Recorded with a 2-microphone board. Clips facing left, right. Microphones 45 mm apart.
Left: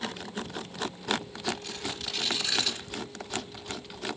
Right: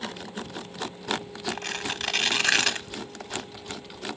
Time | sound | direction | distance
1.5 | tearing paper | 60° right (ahead or behind) | 1.1 m